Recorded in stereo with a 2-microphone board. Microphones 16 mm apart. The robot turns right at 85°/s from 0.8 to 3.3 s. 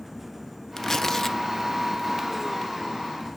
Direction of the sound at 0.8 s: 25° left (ahead or behind).